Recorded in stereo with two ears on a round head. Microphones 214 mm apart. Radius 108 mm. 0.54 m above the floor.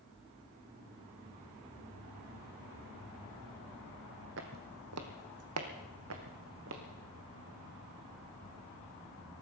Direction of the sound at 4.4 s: 55° right (ahead or behind).